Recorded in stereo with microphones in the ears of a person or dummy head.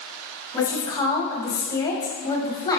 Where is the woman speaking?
25° left (ahead or behind), 0.6 m.